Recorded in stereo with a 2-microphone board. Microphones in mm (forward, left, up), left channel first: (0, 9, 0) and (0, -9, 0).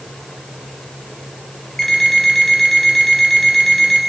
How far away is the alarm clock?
About 5 m.